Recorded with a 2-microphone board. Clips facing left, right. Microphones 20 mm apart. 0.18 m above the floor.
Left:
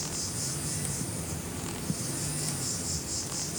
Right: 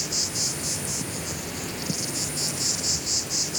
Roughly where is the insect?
Right.